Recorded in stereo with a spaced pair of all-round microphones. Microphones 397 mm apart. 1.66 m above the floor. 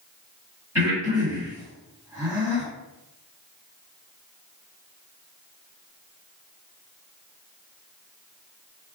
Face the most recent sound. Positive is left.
turn(degrees=-5)  # may be behind; listen again after turning